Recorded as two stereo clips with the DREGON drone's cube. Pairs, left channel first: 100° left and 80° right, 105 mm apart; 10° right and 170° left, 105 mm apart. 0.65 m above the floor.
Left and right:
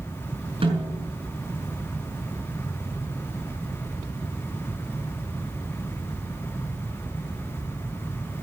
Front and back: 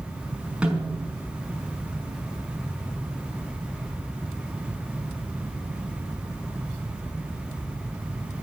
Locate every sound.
0.6 s a snare drum: 110° right, 5.5 m